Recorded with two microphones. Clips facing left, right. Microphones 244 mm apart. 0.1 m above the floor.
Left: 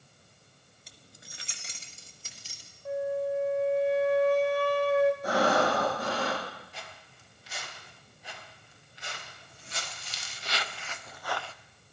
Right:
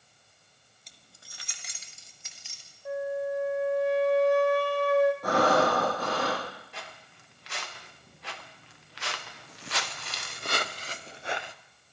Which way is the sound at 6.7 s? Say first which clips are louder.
Right 2 dB; 70° right (ahead or behind).